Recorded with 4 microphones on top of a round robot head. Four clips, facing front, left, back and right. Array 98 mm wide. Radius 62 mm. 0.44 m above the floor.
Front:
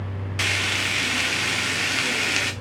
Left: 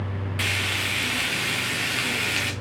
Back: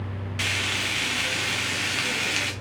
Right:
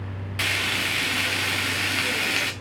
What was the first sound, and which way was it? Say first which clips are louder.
Frying: right 2 dB, front 3 dB; 25° right.